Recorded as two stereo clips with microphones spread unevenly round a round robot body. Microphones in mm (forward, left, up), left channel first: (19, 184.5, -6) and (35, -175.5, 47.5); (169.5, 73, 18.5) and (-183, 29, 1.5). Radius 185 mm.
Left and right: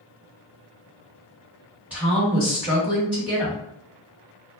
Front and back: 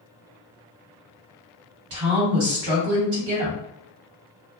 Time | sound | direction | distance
1.9 | a woman speaking | 175° right | 1.5 m